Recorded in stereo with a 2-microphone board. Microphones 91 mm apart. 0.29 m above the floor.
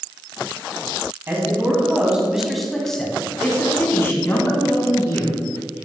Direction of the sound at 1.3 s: 25° right (ahead or behind).